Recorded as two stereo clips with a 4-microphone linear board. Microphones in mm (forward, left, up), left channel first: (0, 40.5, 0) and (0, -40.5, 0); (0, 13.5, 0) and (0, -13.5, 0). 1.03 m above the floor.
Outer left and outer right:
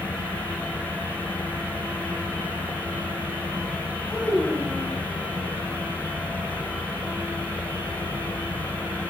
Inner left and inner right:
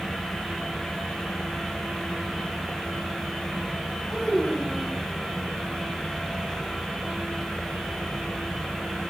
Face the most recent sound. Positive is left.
turn(degrees=15)  # may be behind; listen again after turning